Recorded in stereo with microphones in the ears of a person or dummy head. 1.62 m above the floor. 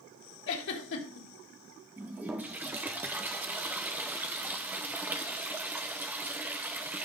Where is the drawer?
No drawer in this recording.